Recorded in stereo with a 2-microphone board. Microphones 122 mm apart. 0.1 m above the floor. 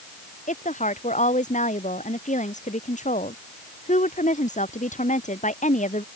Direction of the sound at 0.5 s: 85° left.